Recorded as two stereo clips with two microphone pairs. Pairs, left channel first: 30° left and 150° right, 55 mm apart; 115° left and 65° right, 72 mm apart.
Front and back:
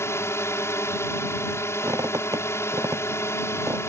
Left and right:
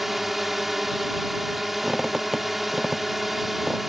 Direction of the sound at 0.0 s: 20° left.